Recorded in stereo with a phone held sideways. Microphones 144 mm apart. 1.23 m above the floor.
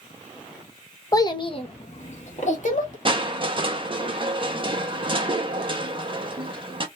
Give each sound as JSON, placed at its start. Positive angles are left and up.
{"t": 1.1, "sound": "a child speaking", "side_deg": 25, "distance_m": 0.6}
{"t": 3.0, "sound": "crushing", "side_deg": -35, "distance_m": 0.6}